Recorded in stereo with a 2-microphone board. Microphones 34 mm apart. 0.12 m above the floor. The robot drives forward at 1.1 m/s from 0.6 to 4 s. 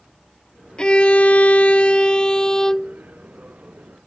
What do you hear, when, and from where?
0.8 s a violin: 30° left (ahead or behind); by 3.0 s 15° left (ahead or behind)